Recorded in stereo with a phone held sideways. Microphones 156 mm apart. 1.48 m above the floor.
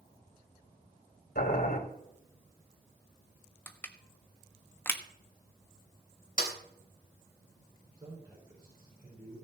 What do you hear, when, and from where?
1.4 s boiling: 70° left (ahead or behind), 3 m
3.7 s crushing: 15° left (ahead or behind), 1.2 m
6.4 s a snare drum: 50° left (ahead or behind), 3 m
8.0 s a man speaking: 20° right (ahead or behind), 5 m